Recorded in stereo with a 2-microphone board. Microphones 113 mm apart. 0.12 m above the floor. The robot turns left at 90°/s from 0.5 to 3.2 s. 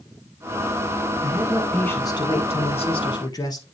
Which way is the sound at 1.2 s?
140° right.